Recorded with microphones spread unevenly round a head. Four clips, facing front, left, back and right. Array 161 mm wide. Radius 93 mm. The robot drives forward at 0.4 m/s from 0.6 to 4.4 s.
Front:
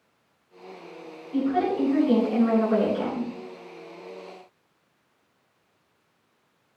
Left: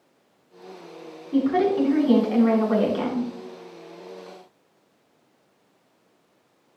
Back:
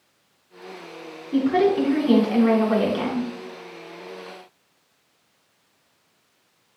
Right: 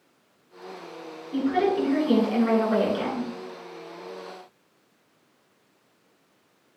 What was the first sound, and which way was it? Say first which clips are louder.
A woman speaking: left 3 dB, back 5 dB; 150° left.